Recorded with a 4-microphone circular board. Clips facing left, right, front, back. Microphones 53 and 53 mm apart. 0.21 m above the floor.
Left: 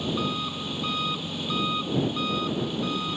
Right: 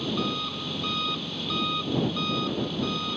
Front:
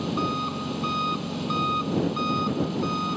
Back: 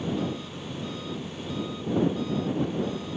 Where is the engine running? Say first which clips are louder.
Left 1 dB, front 4 dB; 5° left.